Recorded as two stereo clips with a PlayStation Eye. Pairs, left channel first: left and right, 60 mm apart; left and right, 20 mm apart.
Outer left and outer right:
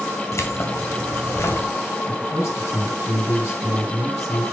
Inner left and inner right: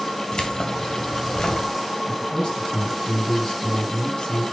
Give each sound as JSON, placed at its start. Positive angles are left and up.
{"t": 0.3, "sound": "keys jangling", "side_deg": 55, "distance_m": 1.7}
{"t": 2.1, "sound": "a man speaking", "side_deg": 50, "distance_m": 4.0}